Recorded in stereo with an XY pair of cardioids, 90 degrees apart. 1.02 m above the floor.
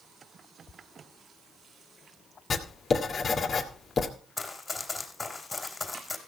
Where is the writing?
45° left, 2.5 m.